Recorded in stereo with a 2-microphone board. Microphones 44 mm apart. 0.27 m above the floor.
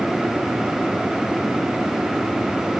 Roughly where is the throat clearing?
I don't hear throat clearing.